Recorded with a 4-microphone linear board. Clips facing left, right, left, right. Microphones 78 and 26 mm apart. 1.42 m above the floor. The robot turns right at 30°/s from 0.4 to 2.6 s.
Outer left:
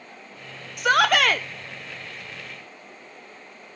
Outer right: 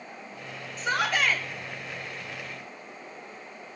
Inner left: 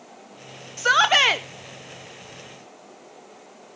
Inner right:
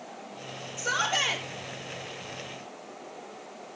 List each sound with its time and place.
0.8 s a shout: 75° left (ahead or behind), 0.9 m; by 1.5 s 70° left (ahead or behind), 0.9 m